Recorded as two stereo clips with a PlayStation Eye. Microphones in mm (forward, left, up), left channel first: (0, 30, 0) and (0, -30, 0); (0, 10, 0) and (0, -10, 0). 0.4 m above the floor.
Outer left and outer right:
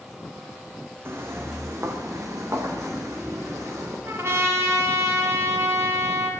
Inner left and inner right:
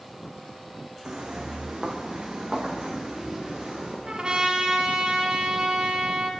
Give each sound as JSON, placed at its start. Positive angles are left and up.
{"t": 1.1, "sound": "footsteps", "side_deg": -40, "distance_m": 1.8}
{"t": 4.0, "sound": "a trumpet", "side_deg": -45, "distance_m": 1.9}